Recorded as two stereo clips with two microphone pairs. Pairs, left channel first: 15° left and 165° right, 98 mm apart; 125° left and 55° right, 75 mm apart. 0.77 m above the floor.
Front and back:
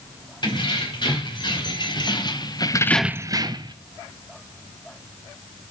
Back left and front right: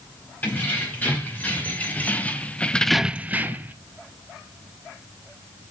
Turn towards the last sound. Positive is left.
turn(degrees=-125)